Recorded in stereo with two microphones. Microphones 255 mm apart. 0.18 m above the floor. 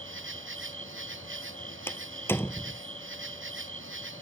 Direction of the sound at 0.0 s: 50° right (ahead or behind).